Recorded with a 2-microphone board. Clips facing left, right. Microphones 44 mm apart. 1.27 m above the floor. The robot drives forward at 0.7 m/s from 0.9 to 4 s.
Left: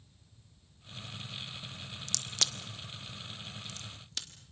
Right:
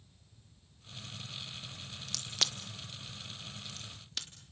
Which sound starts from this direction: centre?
A crack, at 2.1 s.